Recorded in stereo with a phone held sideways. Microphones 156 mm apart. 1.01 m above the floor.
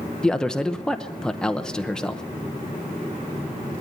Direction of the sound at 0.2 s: 5° left (ahead or behind).